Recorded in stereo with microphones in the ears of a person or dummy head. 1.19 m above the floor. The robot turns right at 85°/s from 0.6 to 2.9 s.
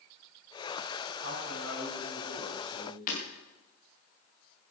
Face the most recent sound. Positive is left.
turn(degrees=50)  # may be behind; listen again after turning